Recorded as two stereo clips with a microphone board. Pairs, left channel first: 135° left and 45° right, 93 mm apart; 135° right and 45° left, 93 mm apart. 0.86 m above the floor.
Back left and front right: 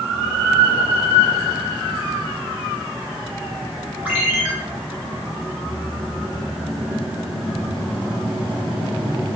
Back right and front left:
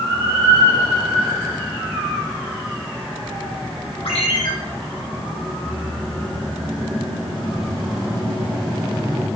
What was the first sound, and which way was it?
A ringtone, 120° right.